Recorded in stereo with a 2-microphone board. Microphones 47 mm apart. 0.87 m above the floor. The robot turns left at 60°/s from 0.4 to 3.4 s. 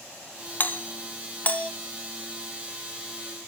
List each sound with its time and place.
0.6 s a doorbell: 40° left (ahead or behind), 1.0 m; by 1.7 s 25° left (ahead or behind), 1.0 m